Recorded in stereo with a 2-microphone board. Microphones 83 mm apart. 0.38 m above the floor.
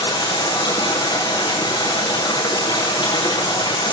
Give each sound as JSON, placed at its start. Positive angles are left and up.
{"t": 0.0, "sound": "running water", "side_deg": 70, "distance_m": 9.0}